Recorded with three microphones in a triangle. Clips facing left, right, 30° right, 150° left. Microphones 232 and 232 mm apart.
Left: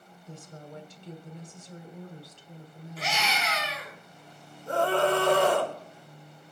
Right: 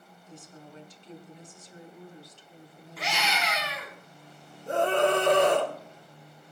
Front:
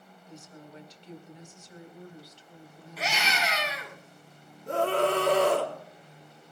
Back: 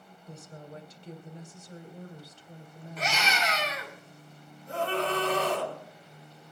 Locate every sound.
0.3 s a woman speaking: 115° left, 2.5 m
3.0 s a scream: 115° right, 10 m
4.7 s a scream: 20° right, 3.5 m